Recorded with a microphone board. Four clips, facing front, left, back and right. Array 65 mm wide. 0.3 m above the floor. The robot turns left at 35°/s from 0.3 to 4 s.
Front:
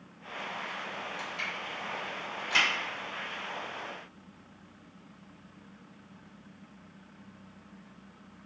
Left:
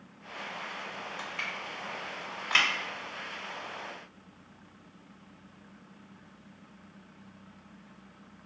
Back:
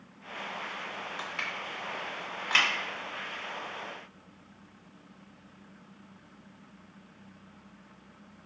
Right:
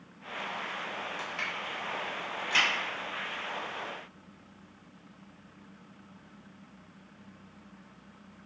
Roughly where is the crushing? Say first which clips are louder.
Right 1 dB, back 1 dB; behind right.